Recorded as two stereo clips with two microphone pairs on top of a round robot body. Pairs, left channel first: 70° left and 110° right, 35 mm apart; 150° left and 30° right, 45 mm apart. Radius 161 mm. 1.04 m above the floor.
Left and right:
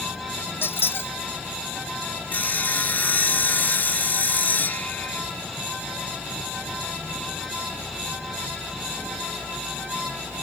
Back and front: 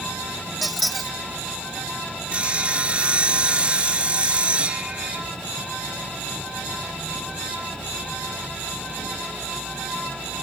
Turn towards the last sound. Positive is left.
turn(degrees=35)